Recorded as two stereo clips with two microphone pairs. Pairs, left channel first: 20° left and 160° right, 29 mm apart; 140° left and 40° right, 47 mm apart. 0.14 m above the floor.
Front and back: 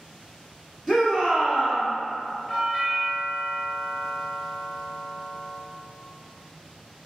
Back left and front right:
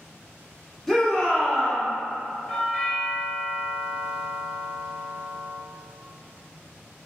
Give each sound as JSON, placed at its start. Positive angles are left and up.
{"t": 0.9, "sound": "a shout", "azimuth_deg": -150, "distance_m": 1.1}
{"t": 2.5, "sound": "a doorbell", "azimuth_deg": 75, "distance_m": 1.7}